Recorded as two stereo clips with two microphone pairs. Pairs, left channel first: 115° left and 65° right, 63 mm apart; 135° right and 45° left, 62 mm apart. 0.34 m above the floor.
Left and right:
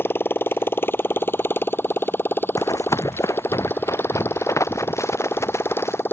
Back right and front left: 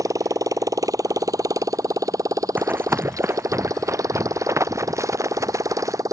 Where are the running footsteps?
100° left; by 6.0 s 75° left.